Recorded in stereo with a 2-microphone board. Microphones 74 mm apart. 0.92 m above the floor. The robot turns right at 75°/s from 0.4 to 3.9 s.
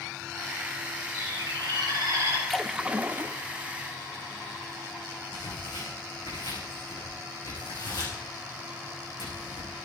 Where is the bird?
130° right, 7.5 m; by 2.4 s 35° right, 7.5 m.